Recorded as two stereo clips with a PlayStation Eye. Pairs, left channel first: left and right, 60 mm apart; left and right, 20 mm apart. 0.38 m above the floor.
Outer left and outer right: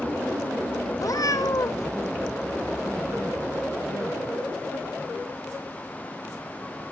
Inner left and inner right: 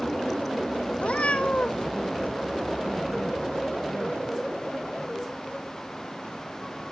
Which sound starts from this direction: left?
A cat meowing, at 1.0 s.